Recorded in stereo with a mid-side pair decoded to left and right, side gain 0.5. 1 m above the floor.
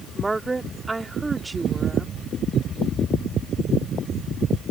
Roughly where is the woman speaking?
Ahead.